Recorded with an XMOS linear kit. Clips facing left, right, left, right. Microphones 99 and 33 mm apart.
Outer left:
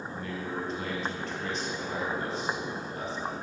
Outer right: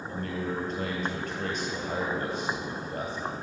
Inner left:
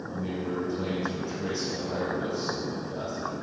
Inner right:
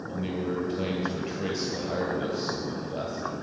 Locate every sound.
0.1 s a man speaking: 55° right (ahead or behind), 2.5 m